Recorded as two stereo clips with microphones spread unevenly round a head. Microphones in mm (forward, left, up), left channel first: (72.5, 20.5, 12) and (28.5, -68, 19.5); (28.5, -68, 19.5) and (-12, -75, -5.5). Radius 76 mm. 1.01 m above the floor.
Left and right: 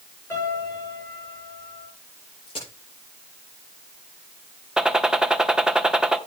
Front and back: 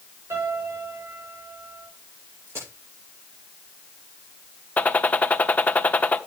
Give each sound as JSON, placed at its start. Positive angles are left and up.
{"t": 0.3, "sound": "a piano", "azimuth_deg": 140, "distance_m": 7.5}
{"t": 2.5, "sound": "a crack", "azimuth_deg": 120, "distance_m": 9.0}
{"t": 4.8, "sound": "a gunshot", "azimuth_deg": -35, "distance_m": 1.2}